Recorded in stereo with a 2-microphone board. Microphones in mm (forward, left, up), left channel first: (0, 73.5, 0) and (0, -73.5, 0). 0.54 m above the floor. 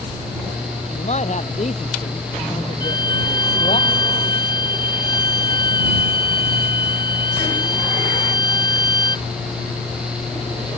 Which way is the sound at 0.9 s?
50° left (ahead or behind).